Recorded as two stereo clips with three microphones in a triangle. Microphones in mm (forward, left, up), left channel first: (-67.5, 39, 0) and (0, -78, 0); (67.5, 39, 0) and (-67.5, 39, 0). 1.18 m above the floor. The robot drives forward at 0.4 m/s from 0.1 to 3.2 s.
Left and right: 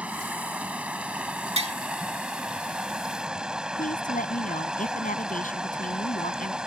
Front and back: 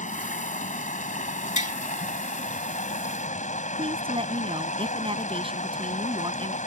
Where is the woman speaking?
135° left.